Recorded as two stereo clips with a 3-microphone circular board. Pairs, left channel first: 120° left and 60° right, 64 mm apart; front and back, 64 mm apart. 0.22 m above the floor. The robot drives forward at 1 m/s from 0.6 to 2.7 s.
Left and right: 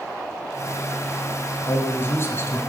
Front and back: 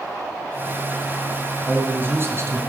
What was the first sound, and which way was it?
A man speaking, 125° left.